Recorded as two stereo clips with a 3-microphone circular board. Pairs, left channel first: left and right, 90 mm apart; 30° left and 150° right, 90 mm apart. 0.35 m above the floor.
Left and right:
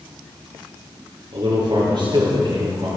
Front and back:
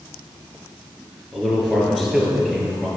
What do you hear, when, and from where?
1.3 s a man speaking: 60° right, 5.5 m